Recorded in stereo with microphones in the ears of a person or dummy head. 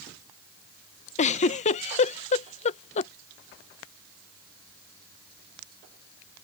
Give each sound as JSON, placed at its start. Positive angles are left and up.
{"t": 1.2, "sound": "a giggle", "side_deg": 40}